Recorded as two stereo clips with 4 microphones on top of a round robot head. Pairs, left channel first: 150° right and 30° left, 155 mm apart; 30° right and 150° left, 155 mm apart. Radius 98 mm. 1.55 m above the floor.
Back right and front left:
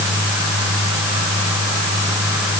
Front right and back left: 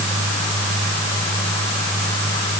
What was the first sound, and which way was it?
Only background noise.